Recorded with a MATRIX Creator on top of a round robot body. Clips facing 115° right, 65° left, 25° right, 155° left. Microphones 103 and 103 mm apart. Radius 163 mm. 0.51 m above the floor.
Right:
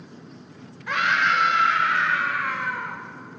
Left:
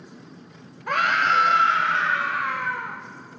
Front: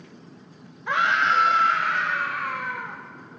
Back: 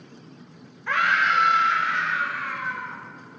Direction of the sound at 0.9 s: 45° left.